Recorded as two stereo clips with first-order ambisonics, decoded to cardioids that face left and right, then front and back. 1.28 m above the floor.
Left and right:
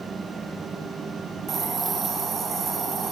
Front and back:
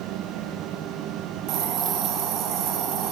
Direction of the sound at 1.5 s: 155° right.